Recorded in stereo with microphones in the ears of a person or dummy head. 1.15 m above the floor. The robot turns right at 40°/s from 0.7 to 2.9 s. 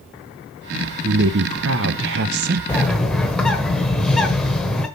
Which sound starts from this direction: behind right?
A woman speaking, at 1.0 s.